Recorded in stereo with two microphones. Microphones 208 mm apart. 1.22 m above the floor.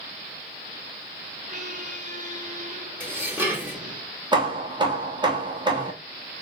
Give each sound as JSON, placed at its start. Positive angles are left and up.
{"t": 1.5, "sound": "a squeak", "side_deg": -40, "distance_m": 0.8}
{"t": 3.0, "sound": "dishes clattering", "side_deg": -10, "distance_m": 1.1}
{"t": 4.3, "sound": "hammering", "side_deg": -25, "distance_m": 0.9}